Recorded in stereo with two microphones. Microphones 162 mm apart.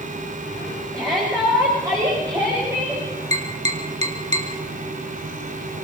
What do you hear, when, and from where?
0.9 s a shout: 25° right (ahead or behind), 8 m; by 3.0 s 15° right (ahead or behind), 7.5 m
3.3 s tapping: 45° right (ahead or behind), 3 m